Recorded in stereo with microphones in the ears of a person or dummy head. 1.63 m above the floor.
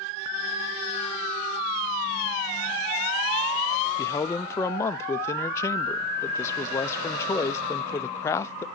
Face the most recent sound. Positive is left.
turn(degrees=15)  # may be behind; listen again after turning